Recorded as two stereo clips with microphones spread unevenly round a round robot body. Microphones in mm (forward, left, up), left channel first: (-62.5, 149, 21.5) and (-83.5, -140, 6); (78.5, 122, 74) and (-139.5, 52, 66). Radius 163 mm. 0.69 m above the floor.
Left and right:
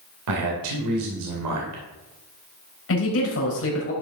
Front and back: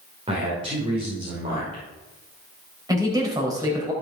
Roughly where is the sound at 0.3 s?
Right.